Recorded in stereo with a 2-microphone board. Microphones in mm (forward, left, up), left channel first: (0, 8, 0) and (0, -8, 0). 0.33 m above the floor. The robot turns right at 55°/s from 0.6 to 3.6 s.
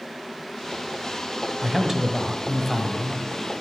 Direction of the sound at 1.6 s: 70° right.